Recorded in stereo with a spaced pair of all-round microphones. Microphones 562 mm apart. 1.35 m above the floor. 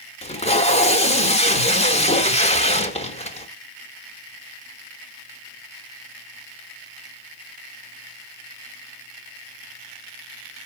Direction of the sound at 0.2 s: 10° left (ahead or behind).